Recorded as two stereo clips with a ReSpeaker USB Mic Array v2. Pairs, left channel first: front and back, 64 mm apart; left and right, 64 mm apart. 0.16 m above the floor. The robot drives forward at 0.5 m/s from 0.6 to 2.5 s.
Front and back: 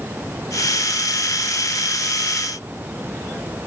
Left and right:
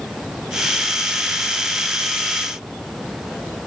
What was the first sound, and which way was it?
Only background noise.